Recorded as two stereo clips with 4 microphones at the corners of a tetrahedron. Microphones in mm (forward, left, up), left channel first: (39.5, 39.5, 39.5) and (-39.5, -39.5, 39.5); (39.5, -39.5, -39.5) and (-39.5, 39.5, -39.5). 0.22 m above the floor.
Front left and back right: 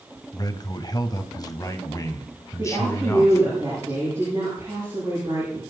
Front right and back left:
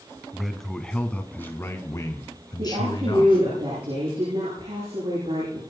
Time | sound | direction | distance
0.3 | a man speaking | 50° left | 1.7 m
2.6 | a woman speaking | 160° left | 8.5 m